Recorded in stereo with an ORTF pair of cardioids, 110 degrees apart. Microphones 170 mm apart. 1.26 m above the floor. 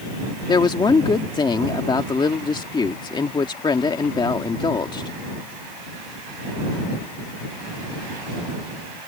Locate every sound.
0.5 s a woman speaking: 25° left